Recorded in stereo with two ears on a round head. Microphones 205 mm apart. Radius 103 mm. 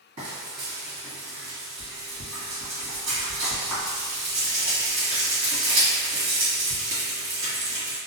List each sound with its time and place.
0.2 s frying: 75° right (ahead or behind), 1.6 m